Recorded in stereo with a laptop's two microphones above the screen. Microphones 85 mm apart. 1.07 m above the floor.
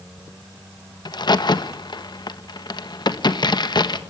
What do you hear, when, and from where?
1.1 s a crack: 55° left (ahead or behind), 1.5 m